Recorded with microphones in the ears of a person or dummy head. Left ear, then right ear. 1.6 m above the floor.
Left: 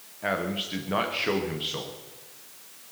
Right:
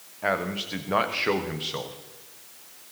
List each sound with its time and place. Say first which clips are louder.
0.2 s a man speaking: right 2 dB; 20° right (ahead or behind), 1.3 m